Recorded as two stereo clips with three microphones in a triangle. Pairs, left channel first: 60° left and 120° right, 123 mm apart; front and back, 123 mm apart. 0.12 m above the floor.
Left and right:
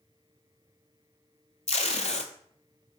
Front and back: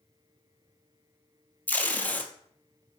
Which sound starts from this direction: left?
Tape being pulled, at 1.7 s.